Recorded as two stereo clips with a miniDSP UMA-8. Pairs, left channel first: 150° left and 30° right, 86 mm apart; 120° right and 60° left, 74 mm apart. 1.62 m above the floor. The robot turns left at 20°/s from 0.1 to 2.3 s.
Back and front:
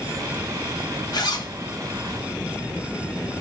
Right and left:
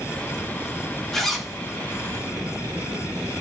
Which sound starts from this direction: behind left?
A zipper, at 1.1 s.